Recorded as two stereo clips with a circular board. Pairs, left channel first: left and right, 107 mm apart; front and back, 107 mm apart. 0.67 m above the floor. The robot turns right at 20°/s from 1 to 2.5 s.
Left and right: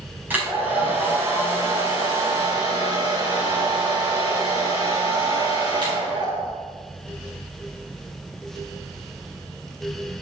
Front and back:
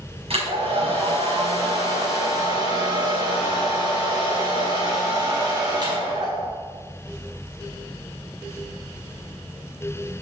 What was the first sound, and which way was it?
A hair dryer, 160° right.